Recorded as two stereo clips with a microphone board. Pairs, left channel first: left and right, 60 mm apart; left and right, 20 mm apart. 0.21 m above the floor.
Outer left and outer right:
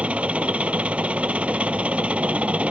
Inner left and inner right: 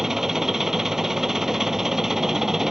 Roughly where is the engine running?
Right.